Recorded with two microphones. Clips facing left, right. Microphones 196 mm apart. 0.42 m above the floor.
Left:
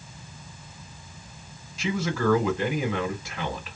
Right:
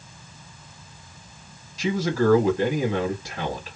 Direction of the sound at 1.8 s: 40° right (ahead or behind).